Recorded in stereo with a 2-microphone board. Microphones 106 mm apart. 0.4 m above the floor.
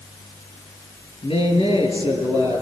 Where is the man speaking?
55° left (ahead or behind), 7 m.